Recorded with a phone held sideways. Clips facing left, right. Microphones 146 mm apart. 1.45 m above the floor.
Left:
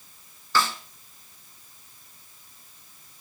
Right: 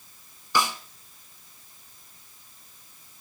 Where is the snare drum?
15° right (ahead or behind), 1.2 m.